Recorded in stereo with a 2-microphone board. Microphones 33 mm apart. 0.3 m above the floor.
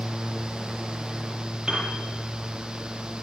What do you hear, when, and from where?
1.7 s a piano: 20° right (ahead or behind), 6.5 m